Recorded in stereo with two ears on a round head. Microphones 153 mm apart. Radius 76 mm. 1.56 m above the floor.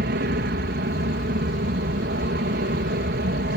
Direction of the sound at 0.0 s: 60° right (ahead or behind).